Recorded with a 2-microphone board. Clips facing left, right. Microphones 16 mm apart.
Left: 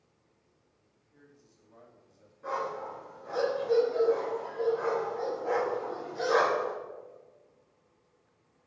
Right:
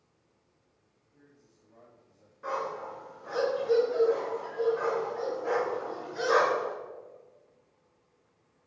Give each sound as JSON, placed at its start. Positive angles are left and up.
{"t": 1.1, "sound": "a man speaking", "side_deg": 45, "distance_m": 2.5}
{"t": 2.4, "sound": "a dog barking", "side_deg": -40, "distance_m": 3.0}